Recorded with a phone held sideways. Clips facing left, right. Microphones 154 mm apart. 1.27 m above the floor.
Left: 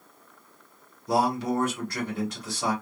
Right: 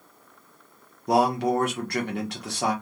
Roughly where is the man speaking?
Right.